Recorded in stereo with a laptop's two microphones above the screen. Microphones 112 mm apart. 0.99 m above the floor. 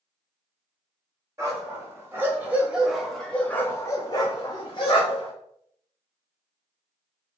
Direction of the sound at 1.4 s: 30° right (ahead or behind).